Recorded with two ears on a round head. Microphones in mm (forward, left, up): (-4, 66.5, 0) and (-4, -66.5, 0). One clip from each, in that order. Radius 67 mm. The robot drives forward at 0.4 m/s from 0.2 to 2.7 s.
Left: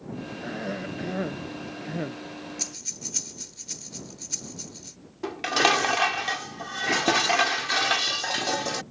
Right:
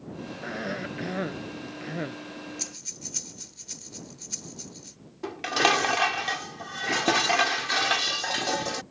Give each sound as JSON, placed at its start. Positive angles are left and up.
{"t": 0.4, "sound": "a cough", "side_deg": -40}
{"t": 2.6, "sound": "breathing", "side_deg": 5}
{"t": 5.2, "sound": "dishes clattering", "side_deg": 5}